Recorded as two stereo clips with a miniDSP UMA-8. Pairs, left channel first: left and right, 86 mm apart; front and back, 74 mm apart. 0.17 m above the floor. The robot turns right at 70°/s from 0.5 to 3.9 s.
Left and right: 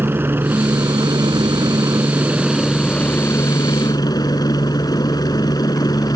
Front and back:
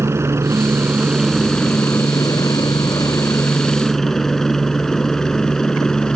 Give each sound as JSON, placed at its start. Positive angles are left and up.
{"t": 0.0, "sound": "a helicopter", "azimuth_deg": -145}